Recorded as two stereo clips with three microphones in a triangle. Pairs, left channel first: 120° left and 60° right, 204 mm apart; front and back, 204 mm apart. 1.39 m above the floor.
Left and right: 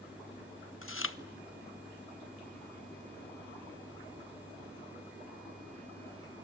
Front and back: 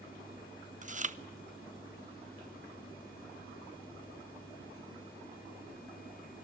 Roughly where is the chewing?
Behind left.